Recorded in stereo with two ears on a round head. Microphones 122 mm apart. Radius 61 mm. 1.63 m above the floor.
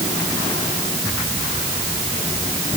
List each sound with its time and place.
Only background noise.